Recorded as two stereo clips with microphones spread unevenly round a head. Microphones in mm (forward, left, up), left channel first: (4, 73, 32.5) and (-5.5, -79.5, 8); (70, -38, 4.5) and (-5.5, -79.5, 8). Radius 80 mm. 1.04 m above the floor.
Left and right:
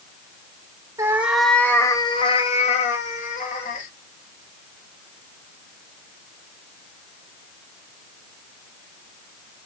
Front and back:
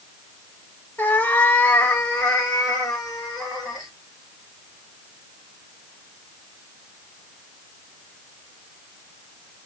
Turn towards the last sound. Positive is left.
turn(degrees=115)